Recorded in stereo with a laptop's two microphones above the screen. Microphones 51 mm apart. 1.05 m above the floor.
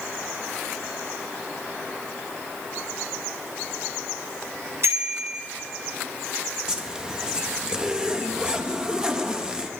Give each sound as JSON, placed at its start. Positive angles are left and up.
{"t": 4.8, "sound": "a bicycle bell", "side_deg": -65, "distance_m": 5.0}
{"t": 6.7, "sound": "a zipper", "side_deg": -15, "distance_m": 0.8}